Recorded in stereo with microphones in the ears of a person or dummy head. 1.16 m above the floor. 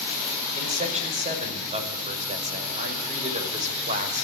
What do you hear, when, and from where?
0.5 s a man speaking: 25° right (ahead or behind), 5.5 m